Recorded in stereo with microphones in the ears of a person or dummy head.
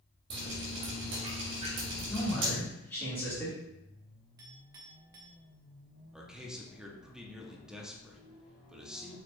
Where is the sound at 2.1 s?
15° left (ahead or behind), 2 m.